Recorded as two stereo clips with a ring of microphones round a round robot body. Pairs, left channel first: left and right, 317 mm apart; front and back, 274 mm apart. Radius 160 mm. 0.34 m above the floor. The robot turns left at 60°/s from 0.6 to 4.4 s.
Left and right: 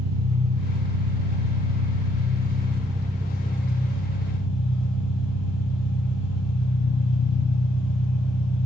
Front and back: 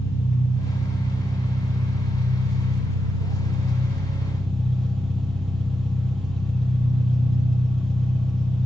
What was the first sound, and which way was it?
An engine running, 45° right.